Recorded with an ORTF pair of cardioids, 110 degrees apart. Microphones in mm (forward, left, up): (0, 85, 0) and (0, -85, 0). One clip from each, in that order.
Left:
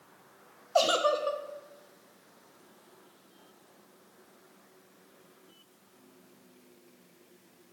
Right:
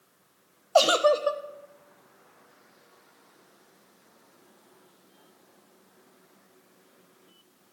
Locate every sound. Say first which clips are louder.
0.8 s a giggle: right 5 dB; 30° right, 0.6 m